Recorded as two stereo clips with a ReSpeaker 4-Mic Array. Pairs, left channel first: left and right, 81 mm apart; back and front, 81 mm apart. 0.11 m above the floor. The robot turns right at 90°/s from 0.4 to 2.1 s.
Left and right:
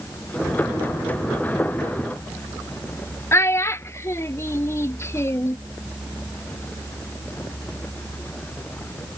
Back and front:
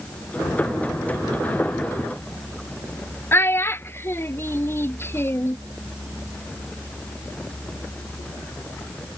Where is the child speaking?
130° left.